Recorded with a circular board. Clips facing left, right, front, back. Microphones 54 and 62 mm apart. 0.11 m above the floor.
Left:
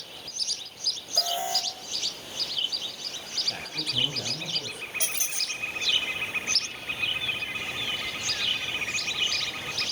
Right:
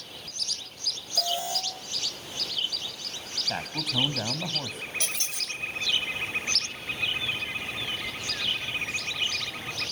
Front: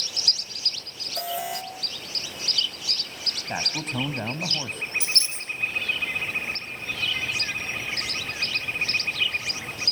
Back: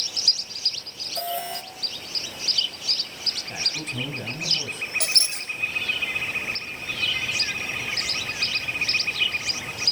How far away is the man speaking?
About 4.5 m.